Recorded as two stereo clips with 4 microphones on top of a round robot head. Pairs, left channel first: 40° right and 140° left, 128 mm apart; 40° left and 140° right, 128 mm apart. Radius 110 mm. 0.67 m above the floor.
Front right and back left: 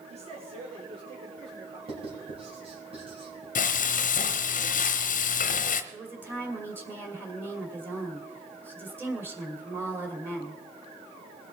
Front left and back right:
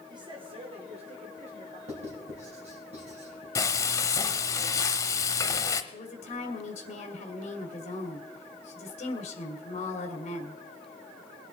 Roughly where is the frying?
Ahead right.